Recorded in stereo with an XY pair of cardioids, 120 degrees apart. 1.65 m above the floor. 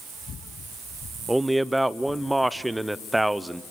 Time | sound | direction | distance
1.3 | a man speaking | 5° right | 0.8 m